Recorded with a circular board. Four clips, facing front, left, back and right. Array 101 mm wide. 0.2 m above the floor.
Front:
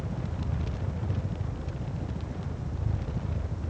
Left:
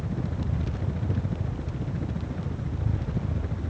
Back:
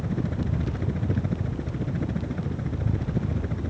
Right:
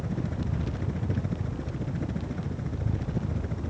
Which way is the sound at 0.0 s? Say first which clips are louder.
Even, back 7 dB; 170° right.